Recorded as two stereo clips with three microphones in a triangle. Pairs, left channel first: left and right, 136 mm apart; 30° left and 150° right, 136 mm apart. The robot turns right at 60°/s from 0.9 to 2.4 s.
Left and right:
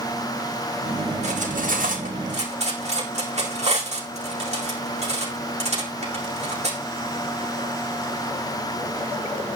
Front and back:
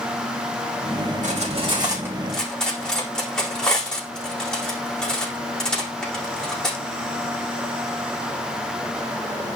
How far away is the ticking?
No ticking in this recording.